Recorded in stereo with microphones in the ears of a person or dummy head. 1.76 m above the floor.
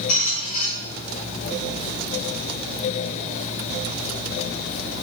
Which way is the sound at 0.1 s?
Centre (ahead or behind).